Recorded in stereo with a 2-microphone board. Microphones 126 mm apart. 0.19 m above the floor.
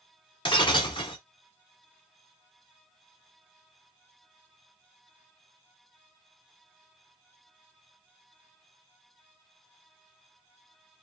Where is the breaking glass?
40° left (ahead or behind), 0.8 m.